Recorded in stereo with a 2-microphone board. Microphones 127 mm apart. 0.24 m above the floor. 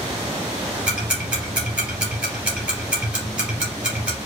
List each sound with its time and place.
0.9 s ticking: 10° right (ahead or behind), 3 m